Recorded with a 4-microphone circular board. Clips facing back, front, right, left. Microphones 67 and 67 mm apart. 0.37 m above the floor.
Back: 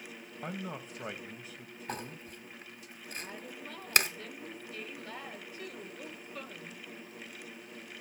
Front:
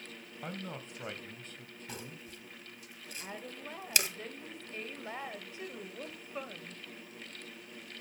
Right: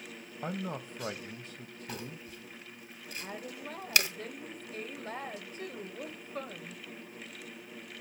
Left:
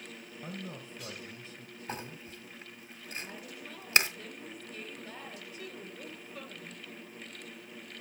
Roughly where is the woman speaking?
Ahead right.